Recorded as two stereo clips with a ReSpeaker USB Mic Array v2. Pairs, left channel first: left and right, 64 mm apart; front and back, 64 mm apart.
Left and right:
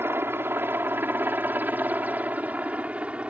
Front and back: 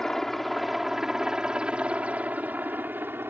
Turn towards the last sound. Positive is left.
turn(degrees=-150)